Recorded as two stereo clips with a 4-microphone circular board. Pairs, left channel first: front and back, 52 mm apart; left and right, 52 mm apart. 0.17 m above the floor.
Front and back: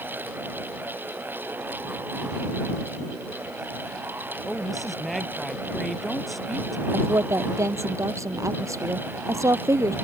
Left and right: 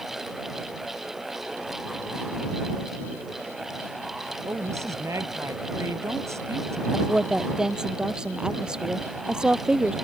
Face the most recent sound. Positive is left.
turn(degrees=-165)